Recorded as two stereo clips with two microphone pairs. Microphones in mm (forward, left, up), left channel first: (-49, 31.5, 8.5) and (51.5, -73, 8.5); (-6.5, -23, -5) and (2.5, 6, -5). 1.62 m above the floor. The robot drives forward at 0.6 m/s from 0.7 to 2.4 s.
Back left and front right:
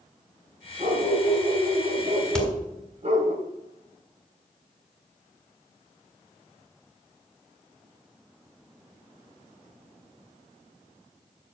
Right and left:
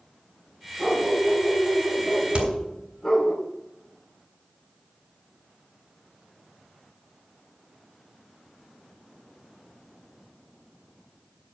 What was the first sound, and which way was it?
A dog barking, 30° right.